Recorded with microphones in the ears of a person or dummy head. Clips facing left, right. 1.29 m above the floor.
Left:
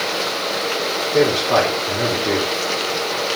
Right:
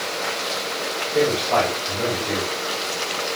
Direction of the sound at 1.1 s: 50° left (ahead or behind).